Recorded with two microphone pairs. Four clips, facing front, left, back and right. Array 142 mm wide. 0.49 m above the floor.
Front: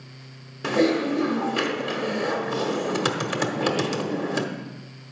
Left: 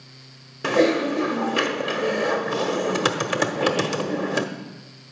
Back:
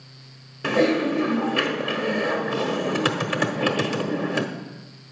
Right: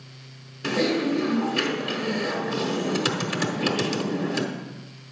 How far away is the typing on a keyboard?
About 0.9 m.